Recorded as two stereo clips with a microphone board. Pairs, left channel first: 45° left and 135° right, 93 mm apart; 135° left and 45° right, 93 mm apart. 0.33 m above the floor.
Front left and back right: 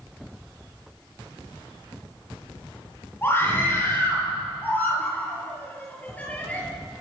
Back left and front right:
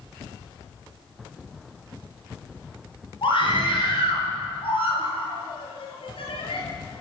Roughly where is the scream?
Left.